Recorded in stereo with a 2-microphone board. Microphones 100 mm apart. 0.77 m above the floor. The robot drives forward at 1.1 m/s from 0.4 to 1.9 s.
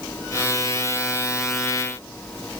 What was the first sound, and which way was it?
Only background noise.